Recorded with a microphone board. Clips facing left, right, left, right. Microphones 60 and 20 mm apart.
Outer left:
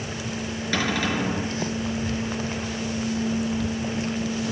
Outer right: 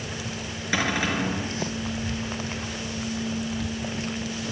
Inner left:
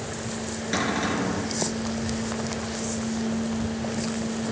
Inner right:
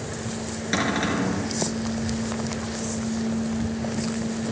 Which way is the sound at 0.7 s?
15° right (ahead or behind).